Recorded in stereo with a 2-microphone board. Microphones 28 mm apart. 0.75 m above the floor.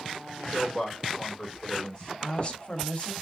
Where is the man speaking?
35° left (ahead or behind), 2 m.